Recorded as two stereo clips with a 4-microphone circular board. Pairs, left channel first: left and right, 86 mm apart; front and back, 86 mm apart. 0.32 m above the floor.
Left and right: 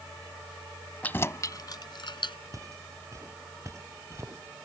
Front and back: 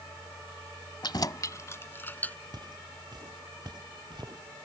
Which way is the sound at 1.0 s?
20° left.